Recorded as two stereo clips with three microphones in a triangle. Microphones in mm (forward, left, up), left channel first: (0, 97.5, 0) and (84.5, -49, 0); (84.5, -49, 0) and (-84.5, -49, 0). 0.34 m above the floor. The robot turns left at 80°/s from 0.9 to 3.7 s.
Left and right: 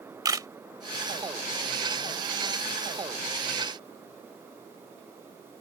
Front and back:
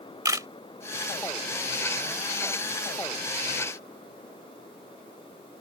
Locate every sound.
0.2 s a camera shutter: 115° right